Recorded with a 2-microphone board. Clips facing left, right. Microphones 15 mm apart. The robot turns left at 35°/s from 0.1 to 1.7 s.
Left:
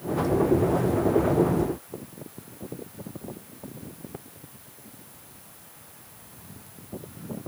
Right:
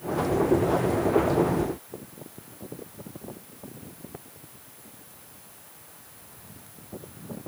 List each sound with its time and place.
Only background noise.